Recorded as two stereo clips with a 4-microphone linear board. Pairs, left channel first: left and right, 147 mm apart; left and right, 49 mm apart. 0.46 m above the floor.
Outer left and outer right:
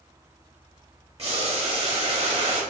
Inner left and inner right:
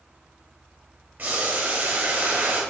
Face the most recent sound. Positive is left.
turn(degrees=-45)  # may be behind; listen again after turning